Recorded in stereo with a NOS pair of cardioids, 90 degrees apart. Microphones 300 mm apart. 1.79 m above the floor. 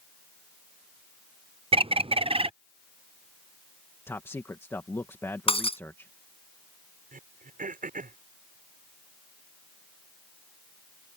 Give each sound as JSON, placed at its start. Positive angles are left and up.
{"t": 1.7, "sound": "a bird", "azimuth_deg": -20}
{"t": 4.1, "sound": "a man speaking", "azimuth_deg": 10}
{"t": 5.5, "sound": "breaking glass", "azimuth_deg": 20}
{"t": 7.1, "sound": "throat clearing", "azimuth_deg": -25}